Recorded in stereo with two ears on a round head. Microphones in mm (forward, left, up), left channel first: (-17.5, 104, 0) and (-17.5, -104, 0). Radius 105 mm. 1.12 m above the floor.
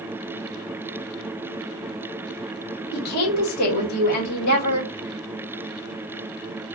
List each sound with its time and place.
2.9 s a woman speaking: 85° left, 1.4 m